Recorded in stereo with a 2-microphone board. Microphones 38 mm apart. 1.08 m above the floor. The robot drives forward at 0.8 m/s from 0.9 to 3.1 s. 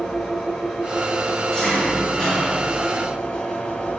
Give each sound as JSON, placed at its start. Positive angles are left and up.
{"t": 0.0, "sound": "an engine running", "side_deg": 15, "distance_m": 4.0}